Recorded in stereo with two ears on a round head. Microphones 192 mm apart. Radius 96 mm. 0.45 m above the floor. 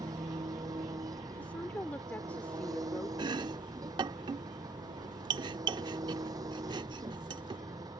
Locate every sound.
0.0 s an engine running: 15° right (ahead or behind)
1.3 s a woman speaking: 10° left (ahead or behind)
3.2 s chopping: 20° right (ahead or behind)